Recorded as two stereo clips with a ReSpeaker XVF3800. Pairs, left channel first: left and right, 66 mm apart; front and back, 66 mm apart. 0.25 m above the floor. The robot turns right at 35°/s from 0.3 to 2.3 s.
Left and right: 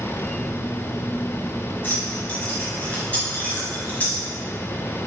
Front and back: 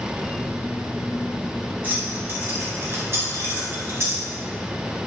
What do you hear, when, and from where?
1.8 s keys jangling: 135° left, 1.1 m; by 4.2 s 150° left, 1.1 m